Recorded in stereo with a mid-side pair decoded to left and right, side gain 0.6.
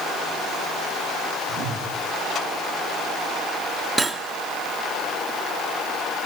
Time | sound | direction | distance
1.5 | a whoosh | 65° right | 3.5 m
4.0 | cutlery clinking | 20° right | 2 m